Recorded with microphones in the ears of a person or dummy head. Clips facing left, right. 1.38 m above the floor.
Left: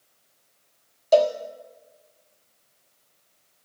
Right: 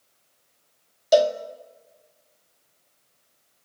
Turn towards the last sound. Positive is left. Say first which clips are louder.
# even
turn(degrees=-15)  # may be behind; listen again after turning